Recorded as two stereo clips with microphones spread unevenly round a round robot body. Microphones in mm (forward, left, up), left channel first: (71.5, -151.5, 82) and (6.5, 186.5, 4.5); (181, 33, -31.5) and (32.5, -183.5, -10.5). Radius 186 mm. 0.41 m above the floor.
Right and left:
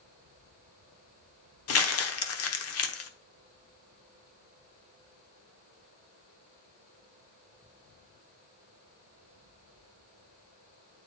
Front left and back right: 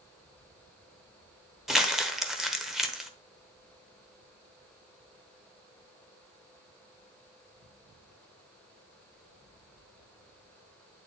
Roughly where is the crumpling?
Ahead right.